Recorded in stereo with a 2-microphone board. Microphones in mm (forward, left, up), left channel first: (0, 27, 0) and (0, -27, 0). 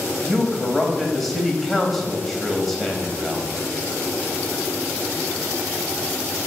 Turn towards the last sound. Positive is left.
turn(degrees=0)  # may be behind; listen again after turning